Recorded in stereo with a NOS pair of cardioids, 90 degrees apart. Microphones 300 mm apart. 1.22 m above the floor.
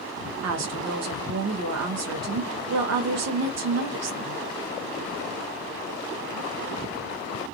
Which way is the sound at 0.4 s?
60° right.